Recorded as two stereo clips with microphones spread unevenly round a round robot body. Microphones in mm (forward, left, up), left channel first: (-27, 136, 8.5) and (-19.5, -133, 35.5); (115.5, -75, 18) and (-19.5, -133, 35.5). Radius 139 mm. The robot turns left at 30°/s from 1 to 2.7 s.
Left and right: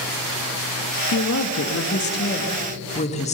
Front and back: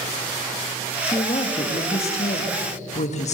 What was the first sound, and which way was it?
A woman speaking, 85° left.